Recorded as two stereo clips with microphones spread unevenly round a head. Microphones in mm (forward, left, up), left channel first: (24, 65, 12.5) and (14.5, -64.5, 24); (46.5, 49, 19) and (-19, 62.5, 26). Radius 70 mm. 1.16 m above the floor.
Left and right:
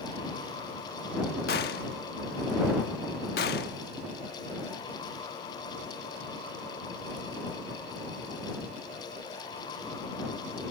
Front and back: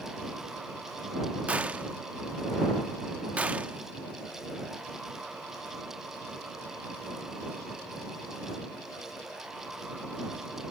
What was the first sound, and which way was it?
A gunshot, 105° left.